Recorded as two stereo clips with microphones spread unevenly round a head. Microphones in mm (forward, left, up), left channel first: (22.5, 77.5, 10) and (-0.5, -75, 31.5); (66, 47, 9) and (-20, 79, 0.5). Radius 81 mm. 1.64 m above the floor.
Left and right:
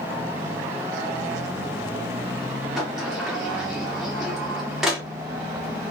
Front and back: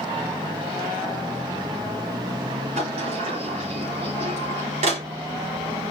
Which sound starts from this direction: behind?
A sliding door, at 2.8 s.